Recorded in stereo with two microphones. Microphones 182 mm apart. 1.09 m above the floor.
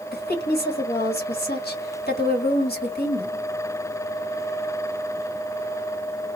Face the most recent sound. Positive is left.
turn(degrees=60)  # may be behind; listen again after turning